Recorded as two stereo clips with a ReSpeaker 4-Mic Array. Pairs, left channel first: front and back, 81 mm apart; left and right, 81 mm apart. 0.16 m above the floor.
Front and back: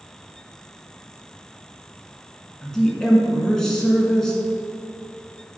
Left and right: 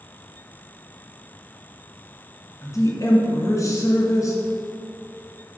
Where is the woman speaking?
80° left, 1.7 m.